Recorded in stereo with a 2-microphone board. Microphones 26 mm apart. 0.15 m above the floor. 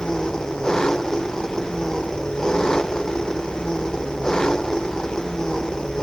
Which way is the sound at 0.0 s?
25° left (ahead or behind).